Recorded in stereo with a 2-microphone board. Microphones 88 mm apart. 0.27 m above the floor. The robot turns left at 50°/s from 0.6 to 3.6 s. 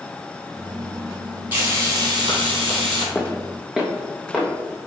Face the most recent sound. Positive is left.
turn(degrees=-5)  # may be behind; listen again after turning